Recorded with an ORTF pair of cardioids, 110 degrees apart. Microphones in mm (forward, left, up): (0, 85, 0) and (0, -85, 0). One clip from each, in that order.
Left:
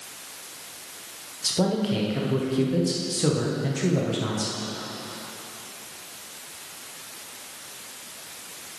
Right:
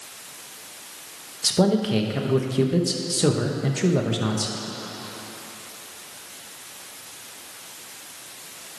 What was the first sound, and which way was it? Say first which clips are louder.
A man speaking: right 4 dB; 25° right.